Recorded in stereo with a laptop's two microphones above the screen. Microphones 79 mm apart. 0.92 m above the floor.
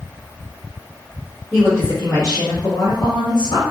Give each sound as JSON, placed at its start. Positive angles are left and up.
{"t": 1.5, "sound": "a woman speaking", "side_deg": 15, "distance_m": 1.3}